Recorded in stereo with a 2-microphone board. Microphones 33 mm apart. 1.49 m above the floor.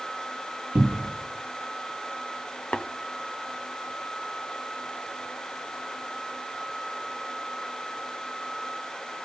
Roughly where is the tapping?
Left.